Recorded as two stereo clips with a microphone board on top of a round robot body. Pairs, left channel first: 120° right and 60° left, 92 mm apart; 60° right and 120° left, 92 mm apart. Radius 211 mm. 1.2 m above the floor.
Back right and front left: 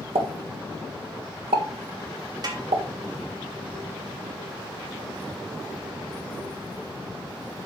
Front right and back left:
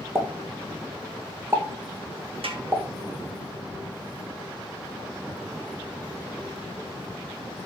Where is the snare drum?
105° left, 2.5 m.